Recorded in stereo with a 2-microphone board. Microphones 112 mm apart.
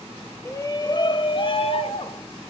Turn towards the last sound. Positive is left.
turn(degrees=60)  # may be behind; listen again after turning